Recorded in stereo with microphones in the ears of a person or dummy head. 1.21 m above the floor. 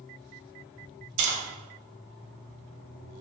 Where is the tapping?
70° right (ahead or behind), 0.8 m.